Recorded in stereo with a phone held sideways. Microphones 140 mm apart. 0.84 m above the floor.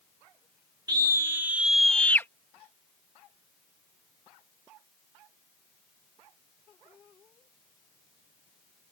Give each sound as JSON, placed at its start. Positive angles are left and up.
{"t": 0.9, "sound": "a scream", "side_deg": -30}